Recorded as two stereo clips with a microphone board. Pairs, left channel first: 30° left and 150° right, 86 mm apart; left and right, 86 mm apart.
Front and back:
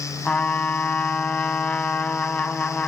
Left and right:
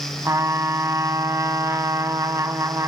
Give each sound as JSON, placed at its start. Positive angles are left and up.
{"t": 0.2, "sound": "a trumpet", "azimuth_deg": -40, "distance_m": 1.0}